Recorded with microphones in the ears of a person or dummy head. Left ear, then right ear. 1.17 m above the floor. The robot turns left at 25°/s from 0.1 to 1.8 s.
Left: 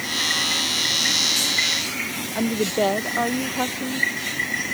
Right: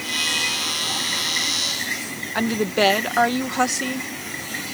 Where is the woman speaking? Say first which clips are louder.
Right 2 dB; 60° right (ahead or behind).